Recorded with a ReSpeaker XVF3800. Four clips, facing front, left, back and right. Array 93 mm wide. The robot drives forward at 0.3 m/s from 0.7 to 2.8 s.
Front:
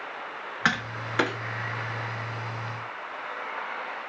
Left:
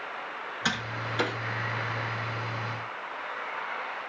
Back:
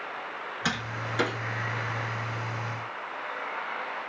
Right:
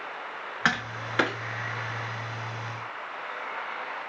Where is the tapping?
45° right, 1.0 m; by 1.4 s 55° right, 0.9 m.